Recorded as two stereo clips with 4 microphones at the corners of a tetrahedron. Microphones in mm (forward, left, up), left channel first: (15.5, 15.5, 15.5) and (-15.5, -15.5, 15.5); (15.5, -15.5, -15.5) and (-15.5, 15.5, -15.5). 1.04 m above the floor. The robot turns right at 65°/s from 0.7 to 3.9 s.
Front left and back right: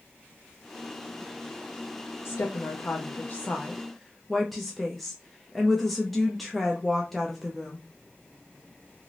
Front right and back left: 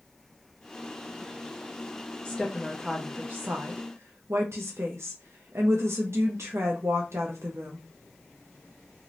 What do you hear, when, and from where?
2.2 s a woman speaking: 25° left, 0.5 m; by 7.8 s 135° left, 0.5 m